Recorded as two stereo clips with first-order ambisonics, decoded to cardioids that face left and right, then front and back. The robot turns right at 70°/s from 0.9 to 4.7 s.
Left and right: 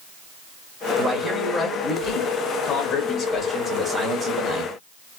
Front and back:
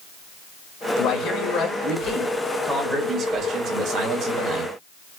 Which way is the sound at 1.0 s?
15° right.